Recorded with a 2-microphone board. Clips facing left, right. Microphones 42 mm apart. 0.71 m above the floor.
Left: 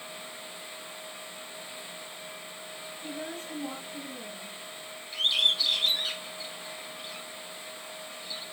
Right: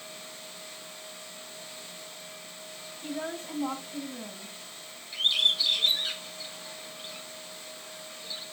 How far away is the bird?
About 6.5 m.